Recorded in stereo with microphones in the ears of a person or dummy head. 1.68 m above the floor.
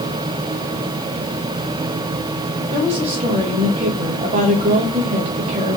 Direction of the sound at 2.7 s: 35° right (ahead or behind).